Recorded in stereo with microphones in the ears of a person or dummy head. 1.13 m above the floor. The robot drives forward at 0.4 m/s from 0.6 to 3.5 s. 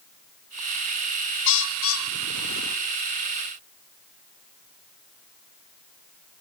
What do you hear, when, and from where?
1.5 s a bird: 70° left (ahead or behind), 1.1 m; by 2.8 s 80° left, 1.1 m